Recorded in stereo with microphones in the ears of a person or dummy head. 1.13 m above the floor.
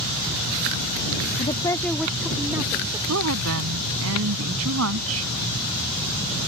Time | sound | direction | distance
1.4 | a woman speaking | 30° left (ahead or behind) | ?
3.1 | a woman speaking | 75° right (ahead or behind) | ?